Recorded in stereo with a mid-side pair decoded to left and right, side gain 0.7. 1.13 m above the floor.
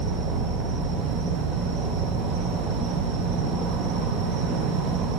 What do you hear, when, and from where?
0.0 s an insect: 60° right, 0.7 m